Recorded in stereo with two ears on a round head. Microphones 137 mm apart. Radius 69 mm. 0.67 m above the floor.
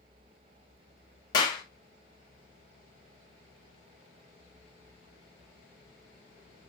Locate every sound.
1.3 s a clap: 25° left (ahead or behind), 0.6 m